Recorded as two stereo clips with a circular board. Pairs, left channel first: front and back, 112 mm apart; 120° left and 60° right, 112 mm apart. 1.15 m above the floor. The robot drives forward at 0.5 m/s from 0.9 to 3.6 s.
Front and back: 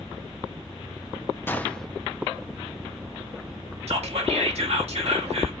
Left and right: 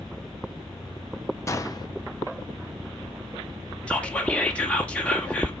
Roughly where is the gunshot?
Ahead left.